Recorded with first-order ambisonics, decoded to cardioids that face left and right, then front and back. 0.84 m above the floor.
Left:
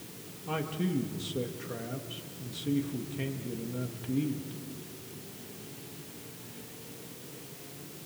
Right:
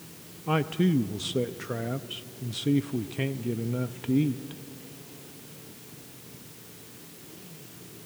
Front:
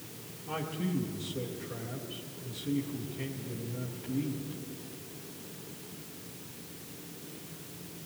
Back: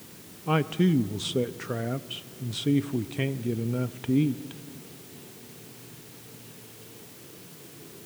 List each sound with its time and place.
0.5 s a man speaking: 150° right, 0.6 m